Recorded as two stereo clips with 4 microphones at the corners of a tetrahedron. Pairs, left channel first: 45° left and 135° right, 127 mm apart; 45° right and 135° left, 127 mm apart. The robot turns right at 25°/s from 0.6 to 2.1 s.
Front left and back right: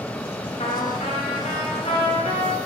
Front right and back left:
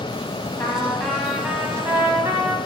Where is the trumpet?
25° left, 1.8 m; by 2.6 s 65° left, 1.8 m.